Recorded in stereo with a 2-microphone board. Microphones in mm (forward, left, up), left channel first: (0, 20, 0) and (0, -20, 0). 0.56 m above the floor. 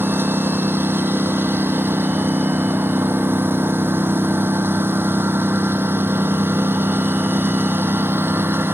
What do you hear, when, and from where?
0.0 s a lawn mower: 65° right (ahead or behind)